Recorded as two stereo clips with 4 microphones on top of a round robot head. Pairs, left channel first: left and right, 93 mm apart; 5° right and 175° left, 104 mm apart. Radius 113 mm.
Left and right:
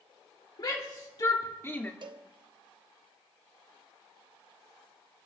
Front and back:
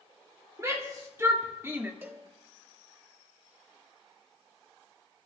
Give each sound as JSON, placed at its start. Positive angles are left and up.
{"t": 0.6, "sound": "a shout", "azimuth_deg": 120, "distance_m": 2.0}
{"t": 2.0, "sound": "a cowbell", "azimuth_deg": -115, "distance_m": 1.0}